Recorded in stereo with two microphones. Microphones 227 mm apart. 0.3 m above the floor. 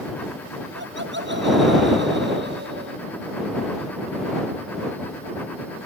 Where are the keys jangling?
I don't hear keys jangling.